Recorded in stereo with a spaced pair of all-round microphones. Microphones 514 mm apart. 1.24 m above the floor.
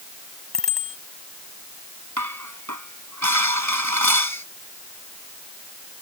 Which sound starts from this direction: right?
Dishes clattering, at 2.2 s.